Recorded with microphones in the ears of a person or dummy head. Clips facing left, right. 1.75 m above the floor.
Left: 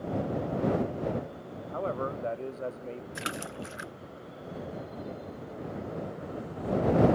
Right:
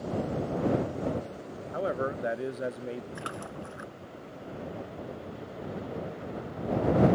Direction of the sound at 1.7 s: 15° right (ahead or behind).